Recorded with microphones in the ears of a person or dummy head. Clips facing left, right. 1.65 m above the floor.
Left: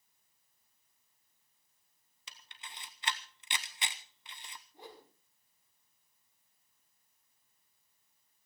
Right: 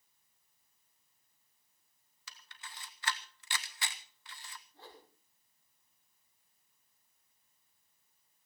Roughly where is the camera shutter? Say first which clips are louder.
Even; centre.